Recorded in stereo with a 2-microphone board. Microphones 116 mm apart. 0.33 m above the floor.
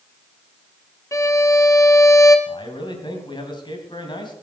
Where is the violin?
25° left (ahead or behind), 1.2 m.